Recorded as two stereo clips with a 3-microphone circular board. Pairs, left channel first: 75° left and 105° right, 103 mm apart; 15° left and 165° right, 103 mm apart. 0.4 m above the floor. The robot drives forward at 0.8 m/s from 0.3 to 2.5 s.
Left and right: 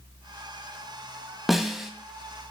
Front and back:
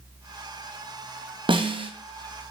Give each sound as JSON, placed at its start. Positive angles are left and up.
{"t": 1.5, "sound": "a snare drum", "azimuth_deg": 165, "distance_m": 2.0}